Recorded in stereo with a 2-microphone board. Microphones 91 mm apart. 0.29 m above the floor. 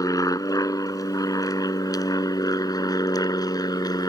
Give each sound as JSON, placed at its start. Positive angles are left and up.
{"t": 0.0, "sound": "an aircraft", "side_deg": 45}